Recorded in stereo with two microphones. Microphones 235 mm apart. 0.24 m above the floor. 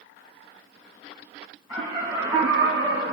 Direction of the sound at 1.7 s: 20° right (ahead or behind).